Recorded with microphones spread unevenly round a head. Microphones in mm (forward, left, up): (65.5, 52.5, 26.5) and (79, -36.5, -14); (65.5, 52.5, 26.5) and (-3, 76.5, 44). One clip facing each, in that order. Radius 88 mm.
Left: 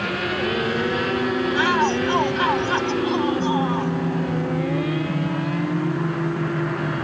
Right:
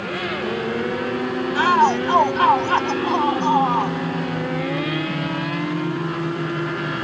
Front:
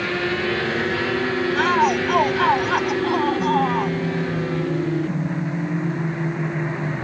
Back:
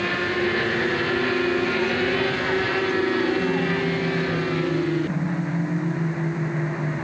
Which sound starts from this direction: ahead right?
A shout, at 1.6 s.